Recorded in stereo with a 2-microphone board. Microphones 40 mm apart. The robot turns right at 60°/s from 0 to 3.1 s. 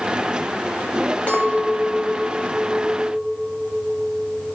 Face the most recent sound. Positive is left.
turn(degrees=-155)